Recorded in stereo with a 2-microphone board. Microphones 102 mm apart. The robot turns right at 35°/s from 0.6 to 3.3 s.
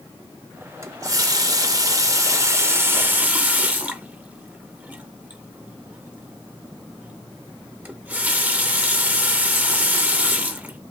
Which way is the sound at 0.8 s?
115° right.